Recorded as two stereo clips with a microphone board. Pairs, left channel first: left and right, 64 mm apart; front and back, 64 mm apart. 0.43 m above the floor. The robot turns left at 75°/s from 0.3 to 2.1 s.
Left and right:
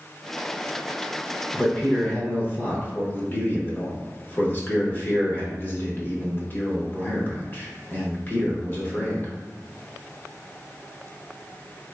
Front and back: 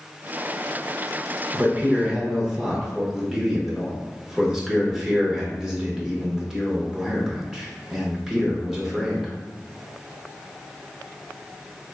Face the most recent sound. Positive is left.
turn(degrees=105)